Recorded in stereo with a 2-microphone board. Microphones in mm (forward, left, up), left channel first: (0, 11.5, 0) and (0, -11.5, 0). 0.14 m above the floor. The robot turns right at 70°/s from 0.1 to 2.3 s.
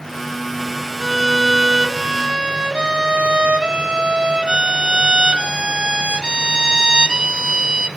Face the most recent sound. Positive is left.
turn(degrees=-105)